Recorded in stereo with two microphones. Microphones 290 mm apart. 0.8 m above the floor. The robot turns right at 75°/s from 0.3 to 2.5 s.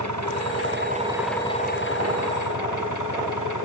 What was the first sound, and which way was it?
An engine running, 75° right.